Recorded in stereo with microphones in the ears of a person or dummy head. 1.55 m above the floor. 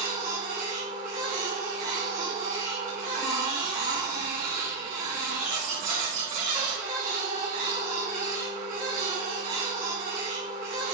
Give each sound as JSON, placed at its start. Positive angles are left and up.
{"t": 0.0, "sound": "a machine running", "side_deg": -40, "distance_m": 2.5}